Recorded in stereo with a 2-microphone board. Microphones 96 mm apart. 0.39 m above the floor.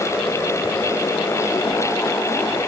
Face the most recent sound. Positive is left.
No sound to turn to.